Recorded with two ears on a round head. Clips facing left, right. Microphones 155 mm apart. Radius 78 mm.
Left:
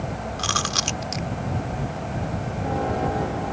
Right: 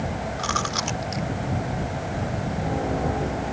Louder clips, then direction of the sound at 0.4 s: Right 1 dB; 40° left (ahead or behind).